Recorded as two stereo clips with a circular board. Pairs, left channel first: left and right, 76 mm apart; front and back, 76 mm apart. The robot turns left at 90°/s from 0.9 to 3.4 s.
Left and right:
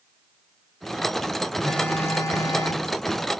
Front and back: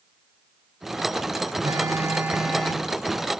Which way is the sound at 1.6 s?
170° left.